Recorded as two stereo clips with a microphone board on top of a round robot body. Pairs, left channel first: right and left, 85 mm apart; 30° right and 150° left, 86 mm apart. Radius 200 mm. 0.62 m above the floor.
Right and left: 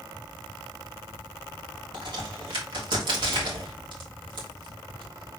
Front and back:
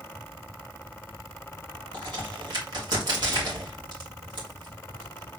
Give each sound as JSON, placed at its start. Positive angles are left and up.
{"t": 1.9, "sound": "a crack", "azimuth_deg": 115, "distance_m": 2.0}